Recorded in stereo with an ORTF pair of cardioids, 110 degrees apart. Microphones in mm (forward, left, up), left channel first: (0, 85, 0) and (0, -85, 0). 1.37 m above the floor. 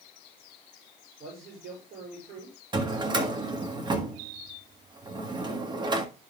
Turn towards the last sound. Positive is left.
turn(degrees=-25)